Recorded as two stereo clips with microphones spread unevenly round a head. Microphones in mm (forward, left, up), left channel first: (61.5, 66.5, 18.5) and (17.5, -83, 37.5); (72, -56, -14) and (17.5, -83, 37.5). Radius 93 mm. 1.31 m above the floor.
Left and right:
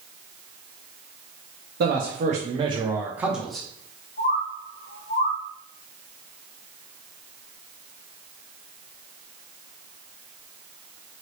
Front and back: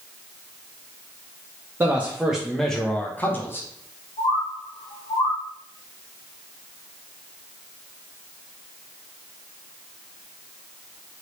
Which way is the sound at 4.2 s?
40° left.